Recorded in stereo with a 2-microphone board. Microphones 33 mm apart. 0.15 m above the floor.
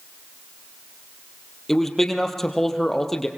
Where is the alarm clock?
No alarm clock in this recording.